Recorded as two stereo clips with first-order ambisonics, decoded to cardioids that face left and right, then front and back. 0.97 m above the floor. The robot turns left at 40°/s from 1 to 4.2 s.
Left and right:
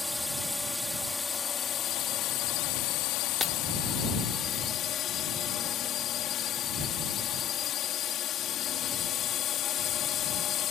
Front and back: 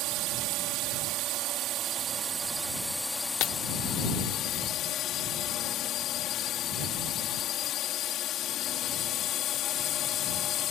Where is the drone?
170° left; by 10.7 s 45° left.